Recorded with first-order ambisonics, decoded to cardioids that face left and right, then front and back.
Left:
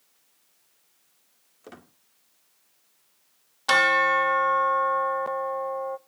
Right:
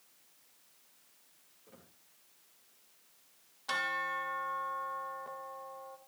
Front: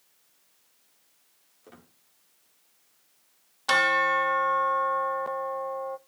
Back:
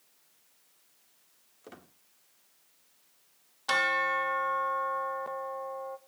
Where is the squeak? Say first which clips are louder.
Left 14 dB, back 2 dB; 110° left, 1.4 m.